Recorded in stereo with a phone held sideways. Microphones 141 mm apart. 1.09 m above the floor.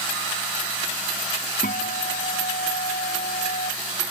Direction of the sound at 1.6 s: 85° left.